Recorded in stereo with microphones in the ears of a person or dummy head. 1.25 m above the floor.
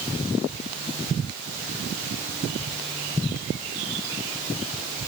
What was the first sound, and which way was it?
Only background noise.